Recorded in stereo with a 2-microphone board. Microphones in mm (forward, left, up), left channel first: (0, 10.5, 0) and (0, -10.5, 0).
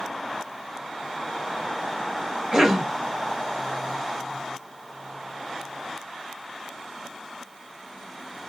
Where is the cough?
30° right (ahead or behind), 1.9 m.